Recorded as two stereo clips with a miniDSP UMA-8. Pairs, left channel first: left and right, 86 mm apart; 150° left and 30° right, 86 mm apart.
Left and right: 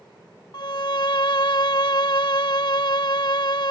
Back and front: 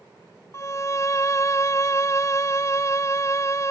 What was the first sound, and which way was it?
A violin, 105° left.